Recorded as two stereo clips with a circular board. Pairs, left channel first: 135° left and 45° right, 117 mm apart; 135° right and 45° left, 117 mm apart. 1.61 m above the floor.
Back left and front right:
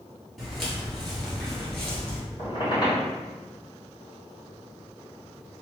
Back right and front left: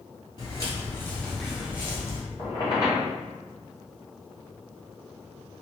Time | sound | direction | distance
0.4 | footsteps | 135° right | 1.9 m
2.4 | a squeak | 175° left | 1.9 m